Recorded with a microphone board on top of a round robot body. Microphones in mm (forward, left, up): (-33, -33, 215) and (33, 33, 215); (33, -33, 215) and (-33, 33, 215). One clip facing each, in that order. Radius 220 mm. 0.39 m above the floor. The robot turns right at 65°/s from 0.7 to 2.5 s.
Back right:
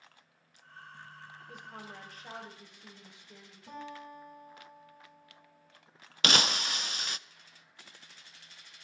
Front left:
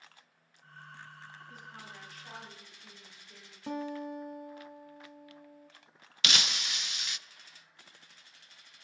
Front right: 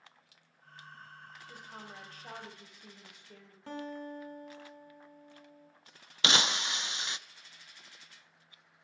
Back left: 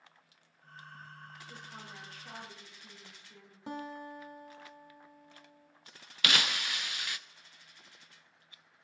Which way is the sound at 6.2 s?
105° right.